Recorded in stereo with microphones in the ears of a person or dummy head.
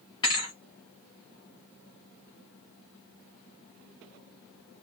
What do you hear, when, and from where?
0.2 s a thud: 20° left (ahead or behind), 0.9 m